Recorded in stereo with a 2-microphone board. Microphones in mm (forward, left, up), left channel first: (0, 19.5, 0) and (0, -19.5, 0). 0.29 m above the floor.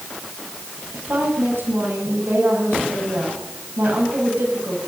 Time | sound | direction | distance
0.9 | a woman speaking | 75° right (ahead or behind) | 8 m